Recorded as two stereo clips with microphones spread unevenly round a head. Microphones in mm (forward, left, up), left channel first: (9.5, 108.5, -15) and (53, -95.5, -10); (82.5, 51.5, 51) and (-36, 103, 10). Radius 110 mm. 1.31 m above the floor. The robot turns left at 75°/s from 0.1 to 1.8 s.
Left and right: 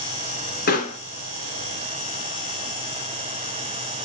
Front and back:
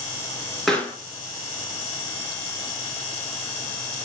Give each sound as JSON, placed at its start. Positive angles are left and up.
{"t": 0.7, "sound": "a pop", "azimuth_deg": 60, "distance_m": 3.5}